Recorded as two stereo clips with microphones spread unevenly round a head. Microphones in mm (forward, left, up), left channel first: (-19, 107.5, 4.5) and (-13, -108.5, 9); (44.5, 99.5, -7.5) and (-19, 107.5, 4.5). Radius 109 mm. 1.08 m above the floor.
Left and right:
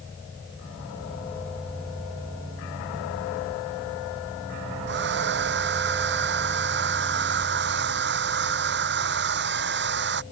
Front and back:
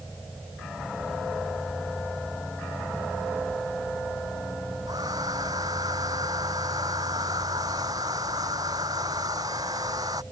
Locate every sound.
4.9 s a hair dryer: 125° right